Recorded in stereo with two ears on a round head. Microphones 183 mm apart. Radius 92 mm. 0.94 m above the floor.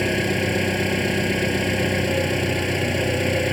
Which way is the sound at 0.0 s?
Centre (ahead or behind).